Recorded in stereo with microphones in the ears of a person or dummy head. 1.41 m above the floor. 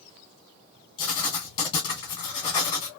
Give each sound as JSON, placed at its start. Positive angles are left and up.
{"t": 1.0, "sound": "writing", "side_deg": 25, "distance_m": 1.4}